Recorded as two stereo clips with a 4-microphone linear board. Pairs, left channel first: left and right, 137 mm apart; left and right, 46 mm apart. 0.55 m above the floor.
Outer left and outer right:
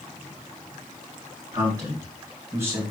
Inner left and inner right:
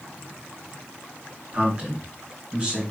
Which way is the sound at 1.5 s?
30° right (ahead or behind).